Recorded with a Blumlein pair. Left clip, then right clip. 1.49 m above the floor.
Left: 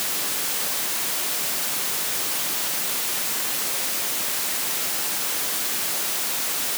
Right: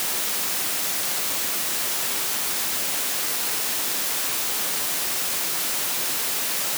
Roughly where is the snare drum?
I don't hear a snare drum.